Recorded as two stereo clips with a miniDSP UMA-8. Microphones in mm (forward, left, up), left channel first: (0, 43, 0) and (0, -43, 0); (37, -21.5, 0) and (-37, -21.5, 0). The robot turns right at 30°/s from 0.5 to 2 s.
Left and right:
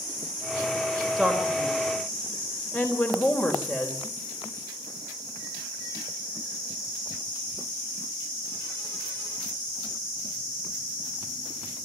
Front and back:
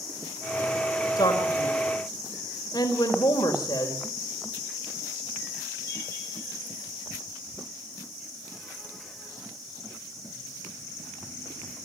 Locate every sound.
1.2 s a man speaking: 5° left, 4 m; by 4.0 s 30° left, 4 m